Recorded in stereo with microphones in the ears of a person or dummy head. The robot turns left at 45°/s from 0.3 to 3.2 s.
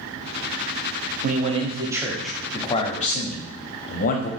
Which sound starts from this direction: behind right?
A man speaking, at 1.2 s.